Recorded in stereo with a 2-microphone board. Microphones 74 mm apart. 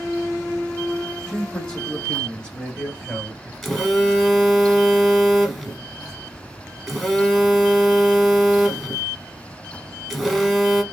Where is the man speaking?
10° left (ahead or behind), 1.3 m; by 3.5 s 15° left (ahead or behind), 1.5 m.